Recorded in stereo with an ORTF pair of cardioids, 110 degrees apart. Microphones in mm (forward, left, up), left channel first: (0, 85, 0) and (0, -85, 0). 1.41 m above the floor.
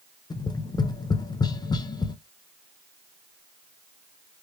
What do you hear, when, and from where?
0.3 s tapping: 25° left, 0.6 m